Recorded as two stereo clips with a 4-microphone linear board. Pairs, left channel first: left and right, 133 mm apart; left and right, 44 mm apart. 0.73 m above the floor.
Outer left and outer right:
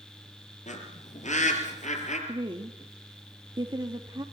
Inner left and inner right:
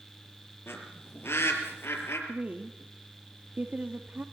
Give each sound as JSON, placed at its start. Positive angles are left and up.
{"t": 0.7, "sound": "a bird", "side_deg": 75, "distance_m": 5.0}
{"t": 2.3, "sound": "a woman speaking", "side_deg": -35, "distance_m": 1.5}